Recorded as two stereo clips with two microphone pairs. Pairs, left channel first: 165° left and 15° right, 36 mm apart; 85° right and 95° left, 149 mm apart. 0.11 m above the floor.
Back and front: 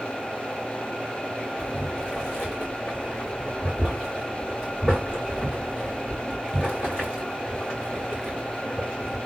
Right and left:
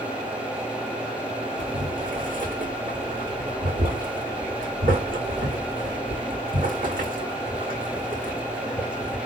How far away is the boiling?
About 2 m.